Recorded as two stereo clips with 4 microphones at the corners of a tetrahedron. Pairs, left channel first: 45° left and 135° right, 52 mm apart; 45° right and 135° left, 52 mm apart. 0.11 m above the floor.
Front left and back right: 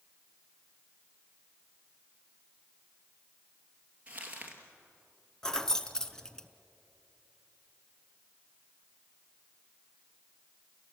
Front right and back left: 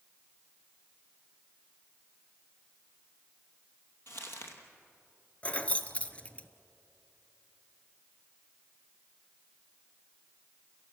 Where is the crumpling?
75° right, 2.5 m.